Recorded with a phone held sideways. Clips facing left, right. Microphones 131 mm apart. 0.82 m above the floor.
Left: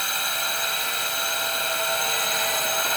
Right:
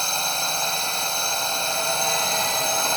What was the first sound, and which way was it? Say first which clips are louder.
A drone: right 3 dB; 30° right (ahead or behind).